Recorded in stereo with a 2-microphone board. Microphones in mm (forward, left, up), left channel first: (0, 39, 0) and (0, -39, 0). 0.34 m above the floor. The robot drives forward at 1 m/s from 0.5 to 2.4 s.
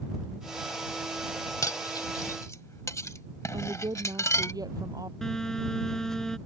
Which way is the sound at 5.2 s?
5° left (ahead or behind).